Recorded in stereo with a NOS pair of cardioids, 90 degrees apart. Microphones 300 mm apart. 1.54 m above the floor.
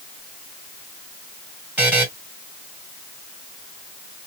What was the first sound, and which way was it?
A buzzer, 5° right.